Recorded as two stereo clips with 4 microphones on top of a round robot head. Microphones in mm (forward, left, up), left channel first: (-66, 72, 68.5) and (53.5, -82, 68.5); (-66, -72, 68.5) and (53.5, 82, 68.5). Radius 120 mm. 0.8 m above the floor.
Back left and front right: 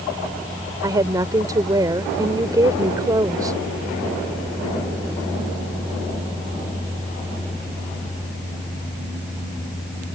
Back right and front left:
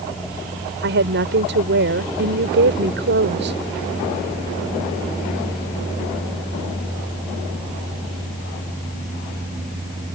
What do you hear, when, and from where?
0.8 s a woman speaking: 20° left